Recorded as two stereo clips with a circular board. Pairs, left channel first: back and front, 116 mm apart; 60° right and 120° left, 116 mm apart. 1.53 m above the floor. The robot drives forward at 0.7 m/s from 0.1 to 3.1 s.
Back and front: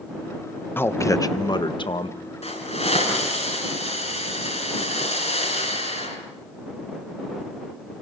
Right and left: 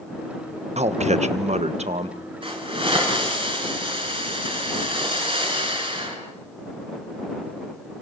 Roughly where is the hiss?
Behind.